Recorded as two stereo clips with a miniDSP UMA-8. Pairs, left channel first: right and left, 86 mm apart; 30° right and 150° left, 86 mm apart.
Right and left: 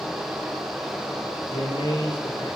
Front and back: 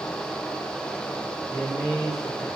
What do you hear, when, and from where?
1.5 s a man speaking: 125° right, 3 m